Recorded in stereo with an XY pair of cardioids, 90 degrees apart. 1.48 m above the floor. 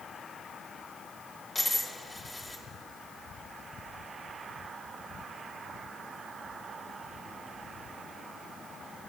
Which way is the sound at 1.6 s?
25° left.